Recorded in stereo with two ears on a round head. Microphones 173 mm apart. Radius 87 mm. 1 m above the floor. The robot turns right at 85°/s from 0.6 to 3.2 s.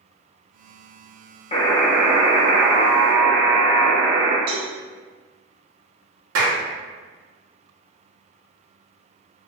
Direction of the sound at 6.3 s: 80° right.